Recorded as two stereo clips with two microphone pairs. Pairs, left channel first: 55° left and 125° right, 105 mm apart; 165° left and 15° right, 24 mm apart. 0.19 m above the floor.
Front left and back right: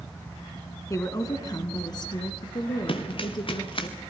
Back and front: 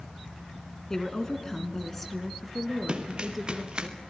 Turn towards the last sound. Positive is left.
turn(degrees=30)